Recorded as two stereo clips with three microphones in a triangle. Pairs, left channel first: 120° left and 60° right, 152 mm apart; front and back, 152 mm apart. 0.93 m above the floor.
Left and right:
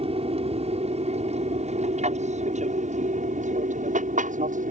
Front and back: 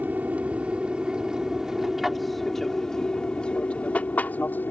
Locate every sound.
0.0 s an aircraft: 100° right; by 4.7 s 75° right